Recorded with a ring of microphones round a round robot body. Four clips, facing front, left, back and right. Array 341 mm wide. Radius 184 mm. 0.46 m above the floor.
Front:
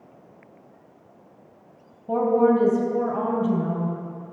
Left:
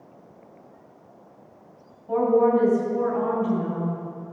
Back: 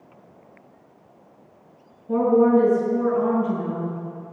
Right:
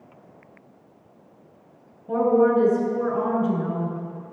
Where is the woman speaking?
25° right, 3 m.